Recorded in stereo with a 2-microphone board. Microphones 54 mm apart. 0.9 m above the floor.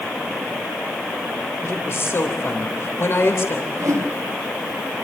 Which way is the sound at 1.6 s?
50° left (ahead or behind).